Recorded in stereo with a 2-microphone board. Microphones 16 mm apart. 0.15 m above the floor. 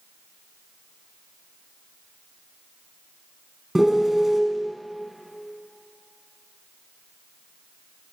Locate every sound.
3.8 s a piano: 20° right (ahead or behind), 0.7 m